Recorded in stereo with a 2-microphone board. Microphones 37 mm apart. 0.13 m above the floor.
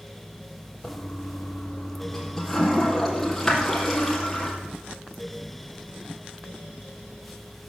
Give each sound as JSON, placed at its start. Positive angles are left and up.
{"t": 0.8, "sound": "a toilet flushing", "side_deg": 5, "distance_m": 3.5}